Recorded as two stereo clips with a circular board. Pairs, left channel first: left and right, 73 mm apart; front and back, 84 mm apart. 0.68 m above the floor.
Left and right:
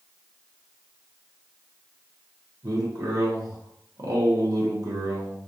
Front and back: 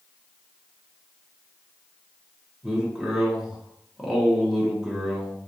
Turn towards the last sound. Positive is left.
turn(degrees=-95)